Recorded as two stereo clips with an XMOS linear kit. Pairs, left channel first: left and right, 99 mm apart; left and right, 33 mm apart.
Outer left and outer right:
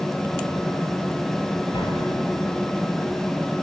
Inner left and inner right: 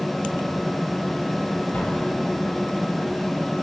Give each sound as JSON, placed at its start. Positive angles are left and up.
{"t": 1.7, "sound": "an explosion", "side_deg": 50, "distance_m": 3.0}